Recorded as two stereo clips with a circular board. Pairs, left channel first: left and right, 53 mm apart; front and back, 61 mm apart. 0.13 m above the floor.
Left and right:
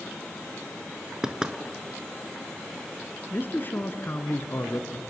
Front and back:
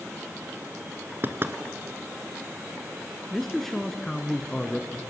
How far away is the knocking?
About 1.4 m.